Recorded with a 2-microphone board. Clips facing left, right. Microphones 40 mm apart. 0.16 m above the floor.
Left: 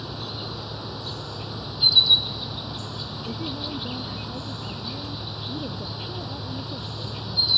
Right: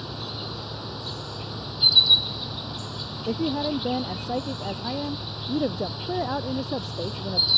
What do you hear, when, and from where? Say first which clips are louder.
0.0 s an insect: even; centre (ahead or behind)
3.3 s a woman speaking: right 8 dB; 75° right (ahead or behind)